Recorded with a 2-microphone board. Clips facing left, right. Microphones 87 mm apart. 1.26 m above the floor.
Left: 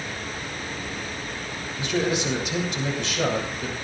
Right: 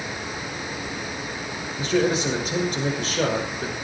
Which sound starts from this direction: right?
A man speaking, at 1.8 s.